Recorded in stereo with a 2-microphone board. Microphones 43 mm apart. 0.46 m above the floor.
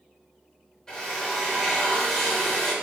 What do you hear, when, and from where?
0.9 s a drill: 15° left (ahead or behind), 1.9 m